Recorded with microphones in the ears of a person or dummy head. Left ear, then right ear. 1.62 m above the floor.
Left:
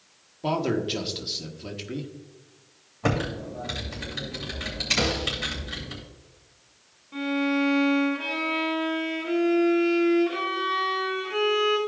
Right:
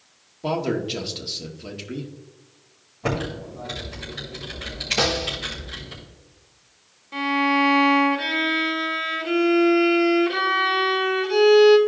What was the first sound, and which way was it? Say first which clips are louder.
A man speaking: right 1 dB; 5° left (ahead or behind).